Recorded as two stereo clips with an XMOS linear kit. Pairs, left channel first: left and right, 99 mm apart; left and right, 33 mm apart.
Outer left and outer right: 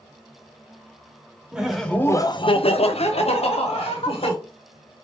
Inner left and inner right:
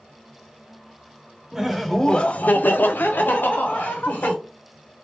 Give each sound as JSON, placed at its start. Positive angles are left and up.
{"t": 1.5, "sound": "laughter", "side_deg": -10, "distance_m": 0.7}